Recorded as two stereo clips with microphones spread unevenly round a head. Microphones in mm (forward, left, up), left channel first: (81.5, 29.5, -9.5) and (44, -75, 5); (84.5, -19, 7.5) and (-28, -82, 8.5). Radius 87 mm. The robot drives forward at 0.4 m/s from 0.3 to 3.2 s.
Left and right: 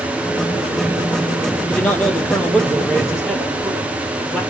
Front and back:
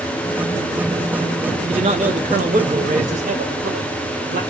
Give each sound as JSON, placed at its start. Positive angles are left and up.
{"t": 1.7, "sound": "a man speaking", "azimuth_deg": 150, "distance_m": 1.0}